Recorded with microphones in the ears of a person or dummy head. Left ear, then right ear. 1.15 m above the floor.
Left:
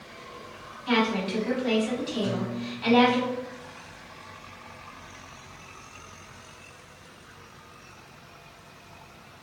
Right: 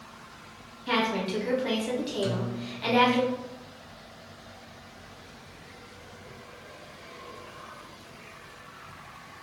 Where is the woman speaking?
5° right (ahead or behind), 1.4 m.